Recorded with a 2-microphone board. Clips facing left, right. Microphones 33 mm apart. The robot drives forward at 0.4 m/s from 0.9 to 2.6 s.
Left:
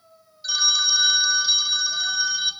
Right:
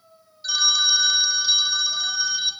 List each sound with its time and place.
0.4 s a phone ringing: centre (ahead or behind), 0.8 m